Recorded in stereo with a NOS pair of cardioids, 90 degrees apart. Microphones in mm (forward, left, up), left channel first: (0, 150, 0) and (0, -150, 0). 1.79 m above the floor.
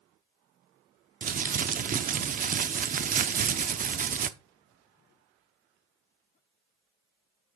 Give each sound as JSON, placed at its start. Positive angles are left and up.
{"t": 1.2, "sound": "crumpling", "azimuth_deg": -30, "distance_m": 0.5}